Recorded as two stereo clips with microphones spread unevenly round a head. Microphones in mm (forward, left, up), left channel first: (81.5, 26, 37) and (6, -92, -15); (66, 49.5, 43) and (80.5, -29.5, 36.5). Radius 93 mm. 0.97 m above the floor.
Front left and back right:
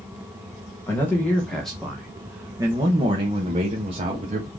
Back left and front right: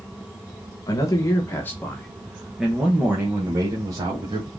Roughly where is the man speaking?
Behind left.